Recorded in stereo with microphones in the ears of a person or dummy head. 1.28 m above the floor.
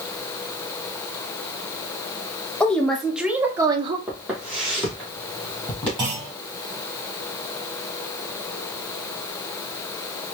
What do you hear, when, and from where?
2.6 s a woman speaking: 5° left (ahead or behind), 1.1 m; by 4.0 s 35° right (ahead or behind), 0.8 m
4.1 s footsteps: 15° right (ahead or behind), 2.5 m; by 5.9 s 5° left (ahead or behind), 3 m
6.0 s a clunk: 35° right (ahead or behind), 3 m